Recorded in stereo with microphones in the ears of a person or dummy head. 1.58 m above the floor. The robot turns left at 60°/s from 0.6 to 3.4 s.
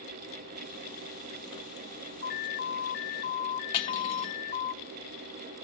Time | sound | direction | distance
2.2 | an alarm | 120° left | 0.8 m
3.7 | cutlery clinking | 35° left (ahead or behind) | 1.3 m